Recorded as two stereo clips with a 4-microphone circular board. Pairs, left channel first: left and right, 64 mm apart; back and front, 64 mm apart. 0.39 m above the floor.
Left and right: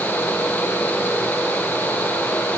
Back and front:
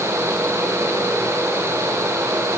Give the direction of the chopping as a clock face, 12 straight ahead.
I don't hear chopping.